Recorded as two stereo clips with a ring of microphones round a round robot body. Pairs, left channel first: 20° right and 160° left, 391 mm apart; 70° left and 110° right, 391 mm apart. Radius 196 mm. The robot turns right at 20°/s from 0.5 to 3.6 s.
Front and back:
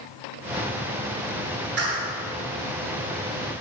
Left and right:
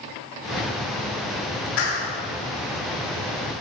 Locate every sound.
1.8 s a clap: 95° left, 7.5 m; by 2.1 s 100° left, 7.5 m